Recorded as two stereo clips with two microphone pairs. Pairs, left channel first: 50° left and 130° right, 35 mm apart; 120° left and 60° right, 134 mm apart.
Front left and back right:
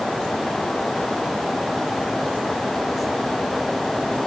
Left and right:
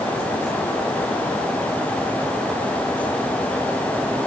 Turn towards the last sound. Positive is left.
No sound to turn to.